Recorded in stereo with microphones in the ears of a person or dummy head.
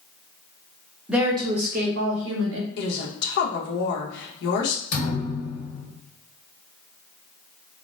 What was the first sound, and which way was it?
A woman speaking, 5° right (ahead or behind).